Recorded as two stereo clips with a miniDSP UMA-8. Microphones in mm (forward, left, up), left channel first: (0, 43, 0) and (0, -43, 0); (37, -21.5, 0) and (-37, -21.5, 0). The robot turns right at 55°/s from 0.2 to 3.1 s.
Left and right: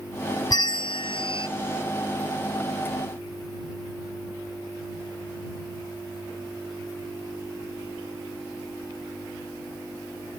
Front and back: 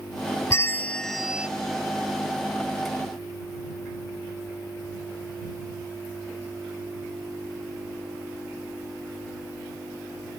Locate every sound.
0.5 s a bell: 50° left; by 1.5 s 105° left